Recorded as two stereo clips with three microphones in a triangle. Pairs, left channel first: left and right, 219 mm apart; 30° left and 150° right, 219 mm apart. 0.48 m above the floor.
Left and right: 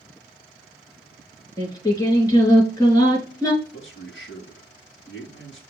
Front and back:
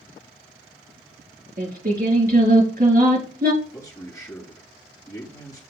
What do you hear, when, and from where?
1.6 s singing: 165° left, 3 m
3.6 s a man speaking: 100° left, 2.5 m